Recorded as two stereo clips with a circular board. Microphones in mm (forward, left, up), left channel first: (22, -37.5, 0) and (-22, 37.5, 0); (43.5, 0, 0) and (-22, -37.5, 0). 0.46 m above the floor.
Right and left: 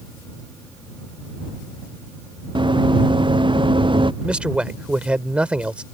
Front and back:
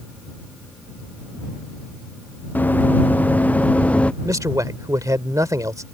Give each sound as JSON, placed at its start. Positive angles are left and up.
{"t": 2.5, "sound": "running footsteps", "azimuth_deg": 100}
{"t": 4.2, "sound": "a man speaking", "azimuth_deg": -165}